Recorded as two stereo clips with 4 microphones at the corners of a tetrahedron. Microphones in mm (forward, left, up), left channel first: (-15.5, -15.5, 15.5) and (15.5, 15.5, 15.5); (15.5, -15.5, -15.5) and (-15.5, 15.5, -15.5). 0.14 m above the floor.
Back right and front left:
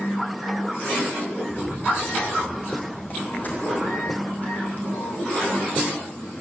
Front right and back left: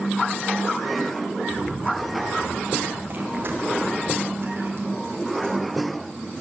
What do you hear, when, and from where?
1.5 s running footsteps: 175° right, 6 m; by 6.0 s 165° left, 8.5 m